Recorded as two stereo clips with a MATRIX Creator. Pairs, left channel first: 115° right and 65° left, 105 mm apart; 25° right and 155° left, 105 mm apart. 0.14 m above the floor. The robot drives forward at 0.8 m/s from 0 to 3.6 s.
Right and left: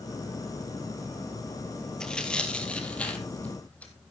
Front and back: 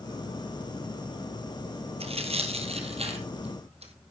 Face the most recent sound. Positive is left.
turn(degrees=170)